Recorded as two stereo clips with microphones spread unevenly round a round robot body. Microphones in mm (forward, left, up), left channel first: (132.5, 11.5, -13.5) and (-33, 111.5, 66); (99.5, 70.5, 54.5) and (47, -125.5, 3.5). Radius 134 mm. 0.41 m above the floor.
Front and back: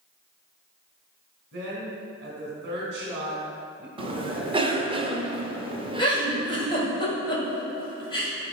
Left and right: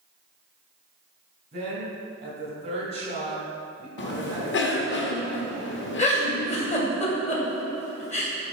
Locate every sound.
1.5 s a woman speaking: 155° right, 2 m
4.0 s a cough: 70° left, 1.3 m
6.0 s a giggle: 15° left, 2 m